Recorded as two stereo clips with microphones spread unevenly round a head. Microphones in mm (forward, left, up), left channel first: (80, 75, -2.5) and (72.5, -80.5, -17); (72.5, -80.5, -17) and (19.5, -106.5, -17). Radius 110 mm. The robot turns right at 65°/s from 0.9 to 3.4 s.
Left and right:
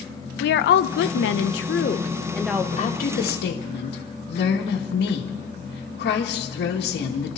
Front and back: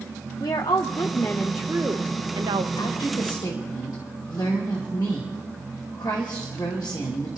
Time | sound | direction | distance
0.4 | a woman speaking | 80° left | 0.8 m
2.8 | a woman speaking | 40° left | 2 m